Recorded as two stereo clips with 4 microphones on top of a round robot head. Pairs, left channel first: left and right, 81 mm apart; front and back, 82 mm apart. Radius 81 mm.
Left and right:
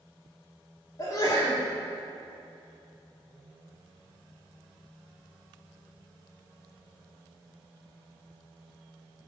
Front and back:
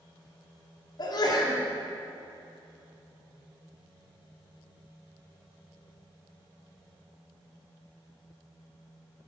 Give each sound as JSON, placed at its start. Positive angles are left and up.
{"t": 1.0, "sound": "a sneeze", "azimuth_deg": 35, "distance_m": 2.0}